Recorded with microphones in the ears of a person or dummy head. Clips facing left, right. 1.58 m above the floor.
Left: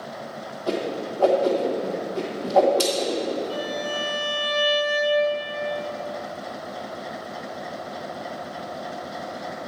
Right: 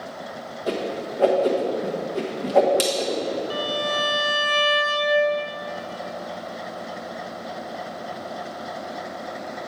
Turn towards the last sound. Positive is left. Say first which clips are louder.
# right 2 dB
turn(degrees=-70)  # may be behind; listen again after turning